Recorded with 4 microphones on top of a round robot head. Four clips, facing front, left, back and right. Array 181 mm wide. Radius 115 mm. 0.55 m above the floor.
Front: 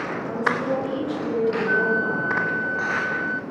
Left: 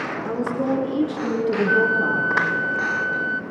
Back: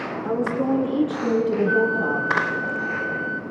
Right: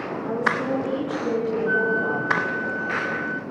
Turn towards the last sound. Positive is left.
turn(degrees=95)